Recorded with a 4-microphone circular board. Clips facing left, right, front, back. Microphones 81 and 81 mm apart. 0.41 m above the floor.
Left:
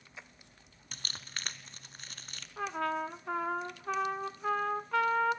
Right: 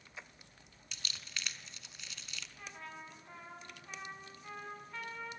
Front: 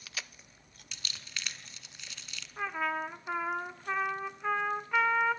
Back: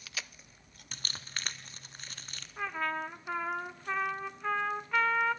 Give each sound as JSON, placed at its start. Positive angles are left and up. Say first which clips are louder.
{"t": 0.9, "sound": "crumpling", "louder": "left 2 dB, back 2 dB", "azimuth_deg": 135, "distance_m": 1.0}
{"t": 2.6, "sound": "a trumpet", "louder": "left 18 dB, front 1 dB", "azimuth_deg": 85, "distance_m": 0.9}